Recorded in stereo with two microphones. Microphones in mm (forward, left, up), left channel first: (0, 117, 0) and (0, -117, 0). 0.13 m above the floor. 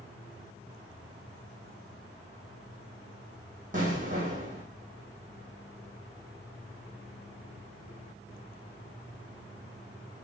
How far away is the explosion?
About 2.5 m.